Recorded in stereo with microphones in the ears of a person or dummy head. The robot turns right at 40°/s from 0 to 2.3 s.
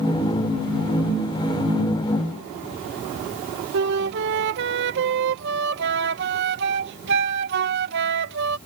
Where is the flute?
60° right (ahead or behind).